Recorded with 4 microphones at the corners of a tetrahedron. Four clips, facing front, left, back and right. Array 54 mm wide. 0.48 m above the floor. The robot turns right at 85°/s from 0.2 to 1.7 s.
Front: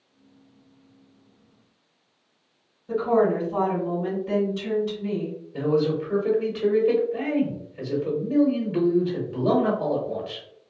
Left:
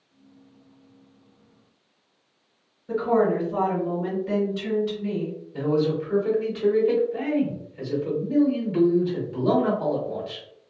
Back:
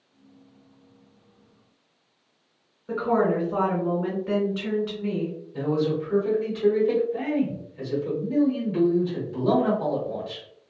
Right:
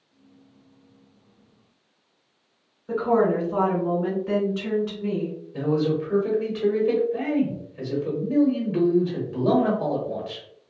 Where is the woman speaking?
145° right, 1.9 m.